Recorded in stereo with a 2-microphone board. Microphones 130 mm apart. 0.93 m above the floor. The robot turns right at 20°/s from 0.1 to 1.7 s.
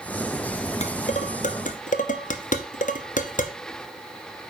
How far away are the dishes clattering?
About 0.7 m.